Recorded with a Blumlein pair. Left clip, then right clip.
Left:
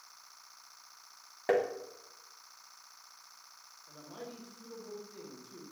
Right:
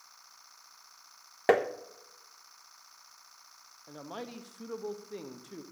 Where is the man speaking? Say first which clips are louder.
Right 5 dB; 35° right, 1.3 m.